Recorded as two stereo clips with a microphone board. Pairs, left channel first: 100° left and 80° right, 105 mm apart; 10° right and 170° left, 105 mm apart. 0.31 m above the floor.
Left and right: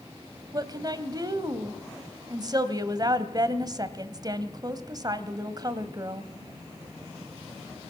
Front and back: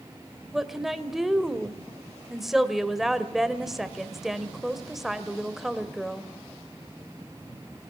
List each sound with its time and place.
0.5 s a woman speaking: 105° right, 1.8 m